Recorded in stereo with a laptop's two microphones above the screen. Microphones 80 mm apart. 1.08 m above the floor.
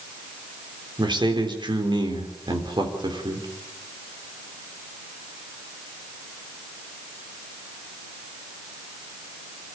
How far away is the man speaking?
About 3.5 m.